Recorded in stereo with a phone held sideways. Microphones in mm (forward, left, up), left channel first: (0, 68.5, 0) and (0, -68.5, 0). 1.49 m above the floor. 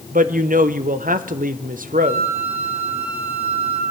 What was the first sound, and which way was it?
A woman speaking, 70° right (ahead or behind).